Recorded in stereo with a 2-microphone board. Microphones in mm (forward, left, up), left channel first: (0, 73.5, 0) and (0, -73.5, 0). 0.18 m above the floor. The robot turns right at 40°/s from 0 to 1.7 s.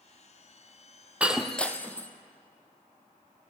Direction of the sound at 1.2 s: 10° right (ahead or behind).